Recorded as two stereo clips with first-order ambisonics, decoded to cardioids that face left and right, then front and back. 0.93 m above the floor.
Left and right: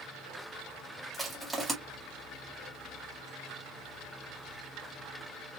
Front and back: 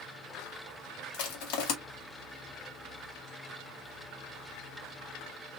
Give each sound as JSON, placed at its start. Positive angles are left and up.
{"t": 1.1, "sound": "crushing", "azimuth_deg": -5, "distance_m": 2.0}